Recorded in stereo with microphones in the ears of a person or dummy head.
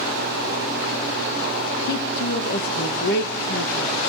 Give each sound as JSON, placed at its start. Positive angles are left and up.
{"t": 1.9, "sound": "a woman speaking", "side_deg": 60, "distance_m": 2.0}